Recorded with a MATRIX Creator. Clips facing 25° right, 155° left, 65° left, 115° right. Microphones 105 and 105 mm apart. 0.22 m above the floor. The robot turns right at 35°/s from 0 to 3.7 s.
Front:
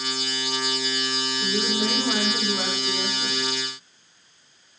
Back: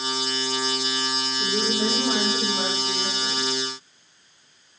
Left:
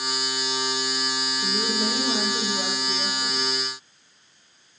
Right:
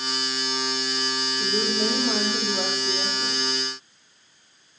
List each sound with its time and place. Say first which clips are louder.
1.4 s a woman speaking: back 1 dB, right 2 dB; 150° right, 7.5 m; by 3.5 s 80° right, 7.5 m